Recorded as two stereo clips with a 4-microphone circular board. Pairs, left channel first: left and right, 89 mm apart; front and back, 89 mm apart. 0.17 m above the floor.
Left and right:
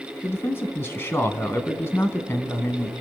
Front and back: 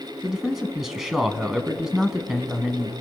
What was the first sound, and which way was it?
A man speaking, 100° left.